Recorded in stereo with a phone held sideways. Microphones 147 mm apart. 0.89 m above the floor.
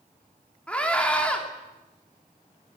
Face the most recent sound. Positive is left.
turn(degrees=10)  # may be behind; listen again after turning